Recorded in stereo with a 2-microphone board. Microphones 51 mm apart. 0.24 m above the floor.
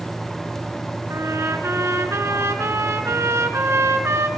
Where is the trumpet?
65° right (ahead or behind), 3.5 m.